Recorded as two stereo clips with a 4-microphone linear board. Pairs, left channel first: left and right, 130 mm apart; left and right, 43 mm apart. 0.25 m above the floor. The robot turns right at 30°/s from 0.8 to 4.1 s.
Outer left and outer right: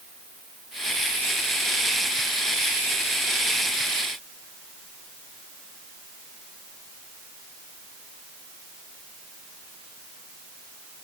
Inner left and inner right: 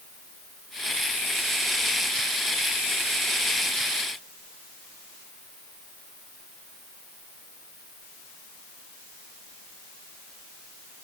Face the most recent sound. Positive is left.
No sound to turn to.